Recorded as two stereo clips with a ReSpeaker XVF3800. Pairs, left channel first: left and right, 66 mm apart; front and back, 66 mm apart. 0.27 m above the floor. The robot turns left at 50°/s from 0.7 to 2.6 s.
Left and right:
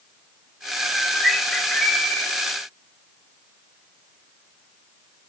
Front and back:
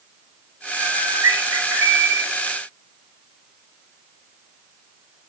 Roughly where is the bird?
Behind right.